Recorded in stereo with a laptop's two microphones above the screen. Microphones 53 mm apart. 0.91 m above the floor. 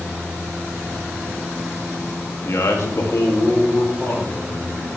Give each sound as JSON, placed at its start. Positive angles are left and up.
{"t": 2.5, "sound": "a man speaking", "side_deg": 65, "distance_m": 1.7}